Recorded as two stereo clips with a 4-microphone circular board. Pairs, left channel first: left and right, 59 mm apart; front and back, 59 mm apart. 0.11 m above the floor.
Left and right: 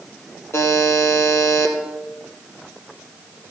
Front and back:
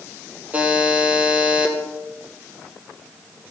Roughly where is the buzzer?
Behind left.